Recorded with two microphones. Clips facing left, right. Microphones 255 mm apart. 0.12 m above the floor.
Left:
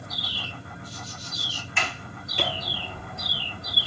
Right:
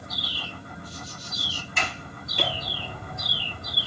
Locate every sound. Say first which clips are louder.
1.8 s a sliding door: even; 45° right (ahead or behind), 2 m